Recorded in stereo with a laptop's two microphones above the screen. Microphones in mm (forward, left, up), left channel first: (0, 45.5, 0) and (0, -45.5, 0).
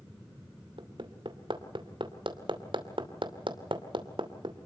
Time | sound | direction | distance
0.8 | hammering | 65° right (ahead or behind) | 2.5 m